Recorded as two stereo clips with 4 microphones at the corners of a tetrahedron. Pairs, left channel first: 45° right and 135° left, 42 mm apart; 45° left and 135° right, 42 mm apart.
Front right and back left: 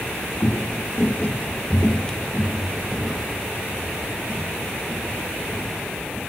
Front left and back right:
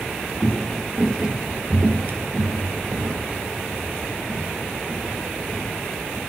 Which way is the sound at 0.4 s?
15° right.